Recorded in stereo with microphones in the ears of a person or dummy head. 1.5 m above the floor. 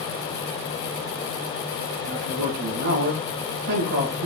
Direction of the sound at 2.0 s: 50° right (ahead or behind).